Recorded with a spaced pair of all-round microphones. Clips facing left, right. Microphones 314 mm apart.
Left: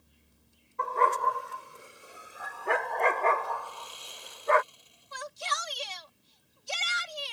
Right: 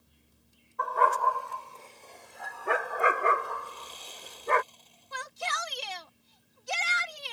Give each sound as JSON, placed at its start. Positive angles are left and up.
{"t": 0.8, "sound": "a dog barking", "side_deg": 35}
{"t": 3.6, "sound": "sawing", "side_deg": 15}
{"t": 5.1, "sound": "a shout", "side_deg": -70}